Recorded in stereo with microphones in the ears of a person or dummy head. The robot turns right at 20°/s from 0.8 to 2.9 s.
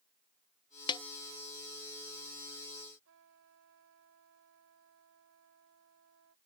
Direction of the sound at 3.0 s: 70° right (ahead or behind).